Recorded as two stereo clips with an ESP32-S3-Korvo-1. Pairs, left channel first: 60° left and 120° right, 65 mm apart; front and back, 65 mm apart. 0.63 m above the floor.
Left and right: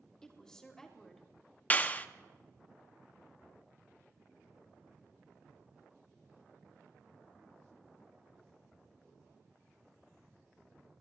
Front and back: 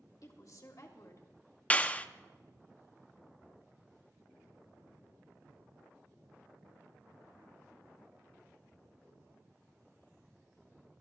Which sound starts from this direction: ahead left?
A clap, at 1.7 s.